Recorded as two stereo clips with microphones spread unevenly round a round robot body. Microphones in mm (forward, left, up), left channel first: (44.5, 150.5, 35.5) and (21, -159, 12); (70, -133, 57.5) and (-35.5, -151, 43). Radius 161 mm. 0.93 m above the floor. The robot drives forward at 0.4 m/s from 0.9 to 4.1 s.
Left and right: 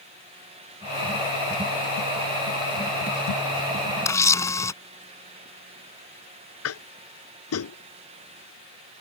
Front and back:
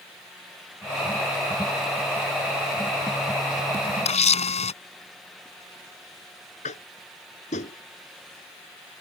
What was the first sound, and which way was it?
A camera shutter, 5° left.